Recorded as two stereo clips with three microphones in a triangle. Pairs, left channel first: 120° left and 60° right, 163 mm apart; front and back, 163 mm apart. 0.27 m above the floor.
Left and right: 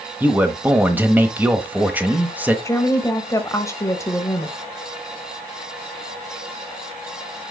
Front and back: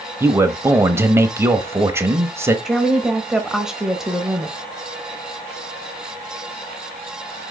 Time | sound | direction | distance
0.2 | a man speaking | 125° right | 0.9 m
2.6 | a woman speaking | 100° left | 1.0 m